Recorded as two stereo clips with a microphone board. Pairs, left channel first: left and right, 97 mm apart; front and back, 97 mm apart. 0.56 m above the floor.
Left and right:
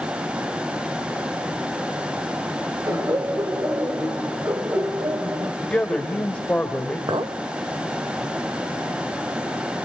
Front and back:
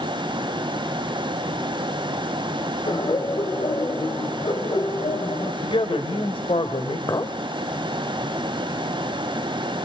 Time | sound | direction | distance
2.9 | laughter | 35° right | 2.5 m
5.6 | a man speaking | 10° left | 2.5 m
7.1 | a clink | 50° right | 1.2 m